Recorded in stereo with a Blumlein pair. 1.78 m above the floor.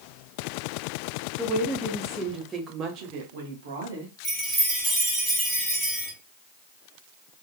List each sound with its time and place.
1.4 s a woman speaking: 10° left, 1.2 m; by 4.1 s 75° right, 1.1 m
4.2 s a chime: 5° right, 1.3 m